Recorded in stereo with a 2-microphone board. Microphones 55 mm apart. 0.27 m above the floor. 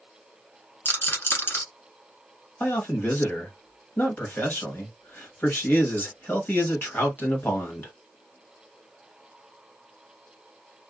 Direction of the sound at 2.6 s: 35° left (ahead or behind).